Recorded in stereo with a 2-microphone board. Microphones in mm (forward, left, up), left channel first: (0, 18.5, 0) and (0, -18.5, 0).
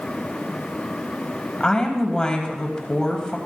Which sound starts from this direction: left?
A woman speaking, at 1.6 s.